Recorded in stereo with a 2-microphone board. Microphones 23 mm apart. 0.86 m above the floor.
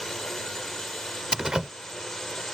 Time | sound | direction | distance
0.0 | a drone | 20° left (ahead or behind) | ?
1.3 | a door slam | 30° right (ahead or behind) | ?